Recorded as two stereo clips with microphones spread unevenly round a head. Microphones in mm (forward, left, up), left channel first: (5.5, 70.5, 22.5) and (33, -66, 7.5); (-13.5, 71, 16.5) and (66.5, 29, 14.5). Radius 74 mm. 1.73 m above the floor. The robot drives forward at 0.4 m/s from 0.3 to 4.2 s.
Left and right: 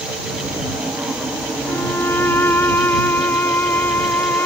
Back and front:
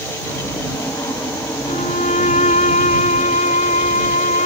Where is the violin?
Straight behind.